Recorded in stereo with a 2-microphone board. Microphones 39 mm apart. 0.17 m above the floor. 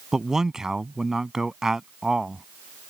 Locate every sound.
0.1 s a man speaking: 15° right (ahead or behind)